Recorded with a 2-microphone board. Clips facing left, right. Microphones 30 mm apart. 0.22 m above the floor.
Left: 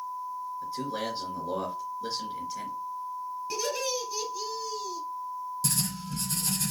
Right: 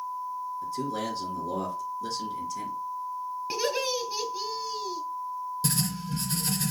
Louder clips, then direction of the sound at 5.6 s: Right 3 dB; 20° right (ahead or behind).